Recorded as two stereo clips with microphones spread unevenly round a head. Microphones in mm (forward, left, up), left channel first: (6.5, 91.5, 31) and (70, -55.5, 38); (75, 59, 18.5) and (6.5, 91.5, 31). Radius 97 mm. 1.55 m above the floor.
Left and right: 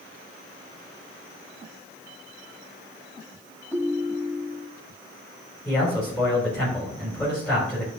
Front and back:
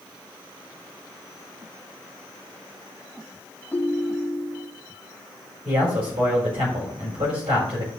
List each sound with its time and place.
3.7 s a ringtone: 35° left, 1.6 m
5.7 s a man speaking: 165° right, 4.5 m